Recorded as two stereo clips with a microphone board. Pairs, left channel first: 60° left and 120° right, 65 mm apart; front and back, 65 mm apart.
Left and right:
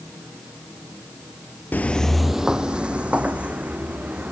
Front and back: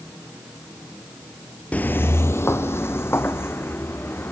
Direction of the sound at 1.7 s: 40° left.